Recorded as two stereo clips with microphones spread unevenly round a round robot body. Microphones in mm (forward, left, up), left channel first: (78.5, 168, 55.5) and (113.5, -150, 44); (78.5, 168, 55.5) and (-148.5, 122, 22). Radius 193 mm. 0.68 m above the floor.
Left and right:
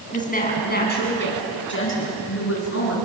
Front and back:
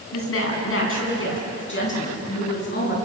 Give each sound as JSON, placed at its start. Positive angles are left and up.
{"t": 0.1, "sound": "a woman speaking", "azimuth_deg": 30, "distance_m": 7.5}